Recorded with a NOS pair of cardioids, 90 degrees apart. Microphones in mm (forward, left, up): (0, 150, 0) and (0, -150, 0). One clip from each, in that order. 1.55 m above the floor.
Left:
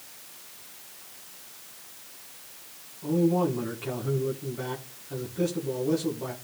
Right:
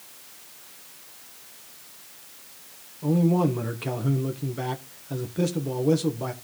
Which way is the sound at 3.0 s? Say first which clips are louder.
Right 1 dB; 45° right.